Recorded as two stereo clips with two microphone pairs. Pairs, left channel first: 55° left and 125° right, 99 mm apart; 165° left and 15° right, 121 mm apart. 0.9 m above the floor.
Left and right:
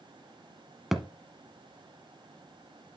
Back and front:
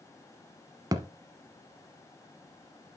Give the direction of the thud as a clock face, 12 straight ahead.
1 o'clock.